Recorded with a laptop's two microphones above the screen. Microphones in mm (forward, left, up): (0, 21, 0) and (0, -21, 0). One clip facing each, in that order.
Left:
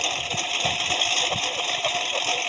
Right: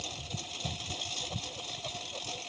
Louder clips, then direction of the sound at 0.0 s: Left 15 dB; 65° left (ahead or behind).